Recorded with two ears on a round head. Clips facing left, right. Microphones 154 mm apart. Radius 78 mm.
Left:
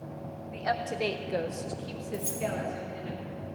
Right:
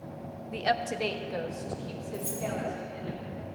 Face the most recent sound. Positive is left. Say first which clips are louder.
# left 2 dB
turn(degrees=50)  # may be behind; listen again after turning